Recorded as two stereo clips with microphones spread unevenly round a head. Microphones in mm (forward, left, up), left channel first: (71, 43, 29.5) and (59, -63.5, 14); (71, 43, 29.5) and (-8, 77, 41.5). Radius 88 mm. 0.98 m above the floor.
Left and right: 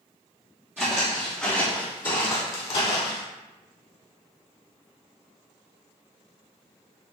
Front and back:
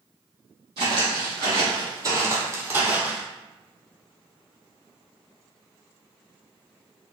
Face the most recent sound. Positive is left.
turn(degrees=90)